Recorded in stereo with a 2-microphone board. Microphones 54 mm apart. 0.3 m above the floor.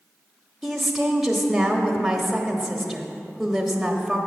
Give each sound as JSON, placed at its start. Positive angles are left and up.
{"t": 0.6, "sound": "a woman speaking", "side_deg": 0, "distance_m": 0.9}